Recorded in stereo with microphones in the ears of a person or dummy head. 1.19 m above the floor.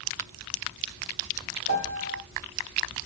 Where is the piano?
75° right (ahead or behind), 2 m.